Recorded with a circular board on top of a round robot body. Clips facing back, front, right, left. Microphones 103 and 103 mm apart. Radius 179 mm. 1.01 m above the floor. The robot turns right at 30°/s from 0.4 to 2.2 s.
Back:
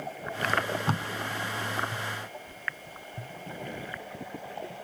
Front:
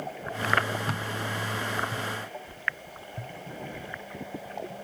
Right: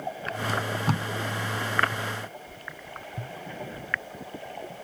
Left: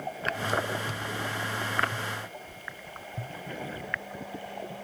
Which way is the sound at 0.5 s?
130° right.